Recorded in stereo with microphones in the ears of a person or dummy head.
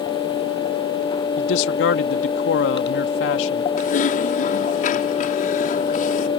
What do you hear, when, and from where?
1.4 s a man speaking: 70° left (ahead or behind)
3.8 s typing on a keyboard: 35° left (ahead or behind)